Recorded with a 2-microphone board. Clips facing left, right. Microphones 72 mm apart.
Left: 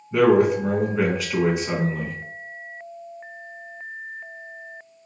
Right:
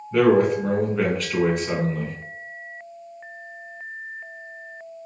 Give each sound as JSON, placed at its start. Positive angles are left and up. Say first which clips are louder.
{"t": 0.1, "sound": "a man speaking", "louder": "even", "side_deg": 5, "distance_m": 1.1}